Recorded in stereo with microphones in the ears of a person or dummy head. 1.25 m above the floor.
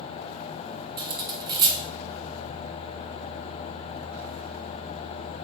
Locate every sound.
1.0 s cutlery clinking: 25° right (ahead or behind), 0.5 m